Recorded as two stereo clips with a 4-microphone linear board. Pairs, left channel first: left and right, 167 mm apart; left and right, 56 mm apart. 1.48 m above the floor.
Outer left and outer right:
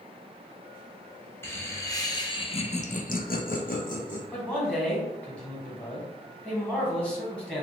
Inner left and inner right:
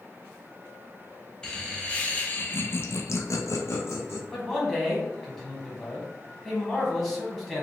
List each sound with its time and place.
1.4 s laughter: 15° left (ahead or behind), 1.3 m; by 4.2 s 45° left (ahead or behind), 0.8 m
4.3 s a man speaking: 5° left (ahead or behind), 1.7 m